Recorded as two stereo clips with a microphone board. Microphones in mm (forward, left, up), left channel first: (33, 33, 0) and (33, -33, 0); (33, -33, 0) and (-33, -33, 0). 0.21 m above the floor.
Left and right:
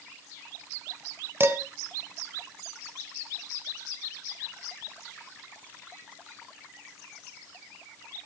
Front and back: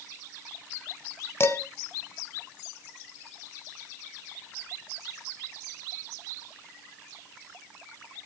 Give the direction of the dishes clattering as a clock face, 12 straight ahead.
1 o'clock.